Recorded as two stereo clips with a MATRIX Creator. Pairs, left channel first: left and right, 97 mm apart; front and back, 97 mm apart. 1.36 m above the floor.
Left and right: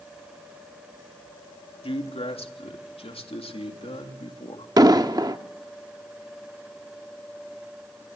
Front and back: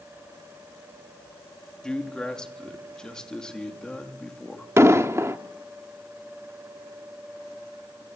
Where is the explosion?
125° right, 1.2 m.